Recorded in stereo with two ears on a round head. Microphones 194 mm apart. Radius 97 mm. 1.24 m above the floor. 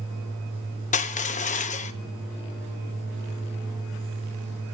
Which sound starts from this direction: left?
Crushing, at 0.9 s.